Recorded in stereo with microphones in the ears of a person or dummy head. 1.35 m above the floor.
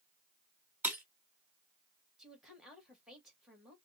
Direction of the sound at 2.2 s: 5° right (ahead or behind).